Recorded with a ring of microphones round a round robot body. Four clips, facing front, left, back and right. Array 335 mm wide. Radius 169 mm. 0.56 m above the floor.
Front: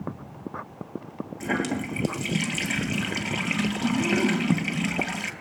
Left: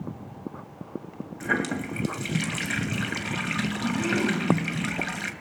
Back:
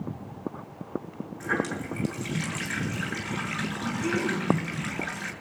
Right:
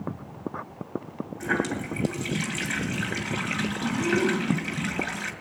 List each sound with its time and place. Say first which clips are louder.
1.4 s a running tap: even, front 2 dB; 35° left, 2.5 m